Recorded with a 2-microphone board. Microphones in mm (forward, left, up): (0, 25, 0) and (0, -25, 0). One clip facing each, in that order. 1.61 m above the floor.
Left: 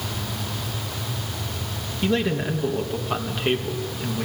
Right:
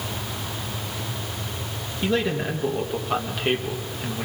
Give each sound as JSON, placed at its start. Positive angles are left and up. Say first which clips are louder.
{"t": 2.0, "sound": "a man speaking", "louder": "left 1 dB", "side_deg": 0, "distance_m": 1.8}